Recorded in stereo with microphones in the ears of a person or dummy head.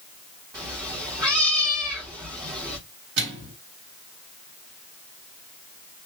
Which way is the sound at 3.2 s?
55° right (ahead or behind).